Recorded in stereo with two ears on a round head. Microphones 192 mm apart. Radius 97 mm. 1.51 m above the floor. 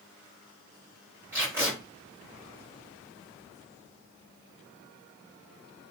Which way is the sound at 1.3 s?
10° right (ahead or behind).